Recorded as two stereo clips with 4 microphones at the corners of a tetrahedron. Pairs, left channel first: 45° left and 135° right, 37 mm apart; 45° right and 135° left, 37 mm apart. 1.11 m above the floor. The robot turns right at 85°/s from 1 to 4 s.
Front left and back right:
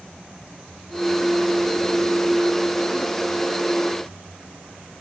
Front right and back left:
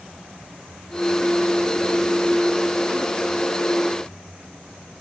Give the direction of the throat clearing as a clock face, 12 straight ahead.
I don't hear throat clearing.